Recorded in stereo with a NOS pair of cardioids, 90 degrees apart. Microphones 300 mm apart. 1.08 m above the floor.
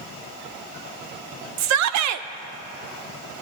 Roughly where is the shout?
Right.